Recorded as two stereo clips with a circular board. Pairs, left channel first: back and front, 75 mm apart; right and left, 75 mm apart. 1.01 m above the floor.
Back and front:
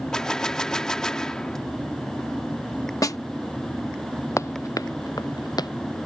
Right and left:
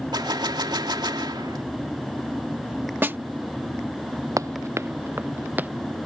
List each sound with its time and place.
0.1 s a gunshot: 100° left
3.0 s a snare drum: 150° left
4.4 s running footsteps: 130° left; by 5.7 s 160° left